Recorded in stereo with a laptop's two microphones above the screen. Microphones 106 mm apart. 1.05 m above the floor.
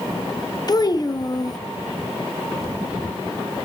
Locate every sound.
0.7 s a child speaking: 35° left (ahead or behind), 0.7 m